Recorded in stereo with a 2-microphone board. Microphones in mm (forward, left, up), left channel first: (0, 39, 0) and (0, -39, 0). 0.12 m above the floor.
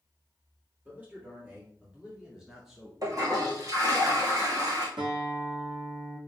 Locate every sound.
0.8 s a man speaking: 25° right (ahead or behind), 3 m; by 2.9 s centre (ahead or behind), 1.9 m
3.0 s a toilet flushing: 55° right (ahead or behind), 2.5 m
5.0 s a guitar: 75° right (ahead or behind), 3.5 m